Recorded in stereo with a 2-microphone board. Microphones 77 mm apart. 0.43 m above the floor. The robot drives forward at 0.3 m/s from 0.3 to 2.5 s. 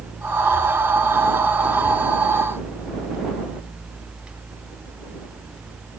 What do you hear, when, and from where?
Only background noise.